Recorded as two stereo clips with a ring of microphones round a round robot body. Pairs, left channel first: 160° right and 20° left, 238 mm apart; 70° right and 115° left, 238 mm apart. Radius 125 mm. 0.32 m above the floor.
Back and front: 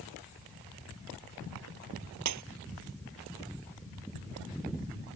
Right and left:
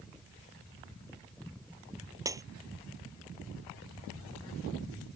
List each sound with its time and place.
2.2 s breaking glass: 35° left